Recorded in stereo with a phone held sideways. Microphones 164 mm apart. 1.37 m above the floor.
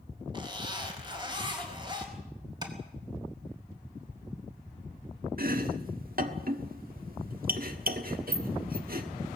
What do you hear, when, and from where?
0.3 s a zipper: 30° right (ahead or behind), 4 m
2.6 s tapping: 25° right (ahead or behind), 3.5 m
5.4 s chopping: 65° right (ahead or behind), 1.5 m